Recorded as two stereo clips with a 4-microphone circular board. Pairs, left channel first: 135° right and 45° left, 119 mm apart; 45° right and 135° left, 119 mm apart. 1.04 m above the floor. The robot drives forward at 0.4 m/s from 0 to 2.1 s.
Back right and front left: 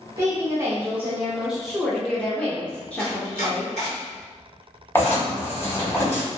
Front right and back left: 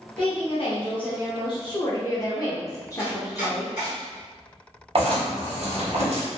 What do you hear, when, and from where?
0.2 s a woman speaking: 15° right, 1.0 m; by 3.7 s 65° right, 0.6 m
3.0 s chopping: 155° right, 1.9 m
5.0 s writing: 155° left, 1.1 m